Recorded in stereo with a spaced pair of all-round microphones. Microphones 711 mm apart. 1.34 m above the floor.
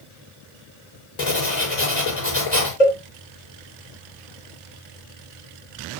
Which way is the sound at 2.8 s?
70° left (ahead or behind).